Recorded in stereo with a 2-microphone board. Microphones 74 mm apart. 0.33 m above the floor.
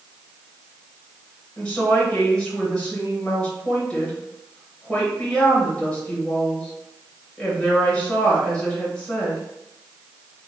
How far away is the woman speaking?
About 1.2 m.